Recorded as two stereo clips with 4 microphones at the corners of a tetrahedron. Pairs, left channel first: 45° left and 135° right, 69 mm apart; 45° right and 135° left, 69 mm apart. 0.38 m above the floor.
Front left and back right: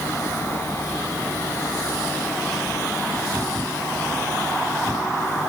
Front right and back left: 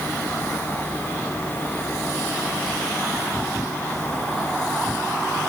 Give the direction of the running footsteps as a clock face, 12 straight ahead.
I don't hear running footsteps.